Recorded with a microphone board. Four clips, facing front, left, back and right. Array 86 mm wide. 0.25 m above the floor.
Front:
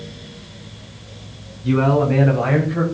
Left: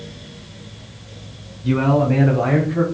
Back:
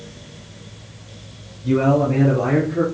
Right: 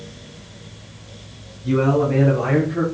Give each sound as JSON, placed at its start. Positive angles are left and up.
{"t": 1.6, "sound": "a man speaking", "azimuth_deg": 55, "distance_m": 1.4}